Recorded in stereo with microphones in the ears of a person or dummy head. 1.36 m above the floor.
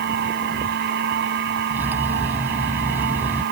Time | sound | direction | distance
0.0 | a machine running | 60° right (ahead or behind) | ?
1.7 | cutlery clinking | 10° right (ahead or behind) | ?